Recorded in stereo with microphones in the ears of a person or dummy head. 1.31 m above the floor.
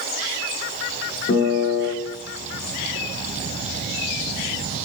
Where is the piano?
45° left (ahead or behind), 2 m.